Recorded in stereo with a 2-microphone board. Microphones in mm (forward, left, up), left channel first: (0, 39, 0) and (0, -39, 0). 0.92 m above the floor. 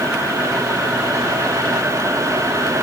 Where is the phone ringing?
No phone ringing in this recording.